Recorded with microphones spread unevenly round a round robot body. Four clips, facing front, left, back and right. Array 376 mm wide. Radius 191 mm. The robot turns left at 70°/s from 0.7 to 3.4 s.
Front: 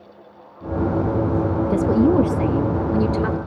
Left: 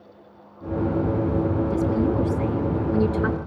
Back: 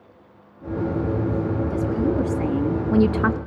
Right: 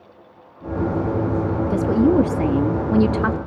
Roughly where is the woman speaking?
Ahead right.